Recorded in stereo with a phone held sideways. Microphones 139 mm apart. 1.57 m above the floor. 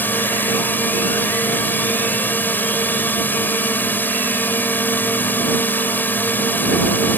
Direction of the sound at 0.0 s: 15° left (ahead or behind).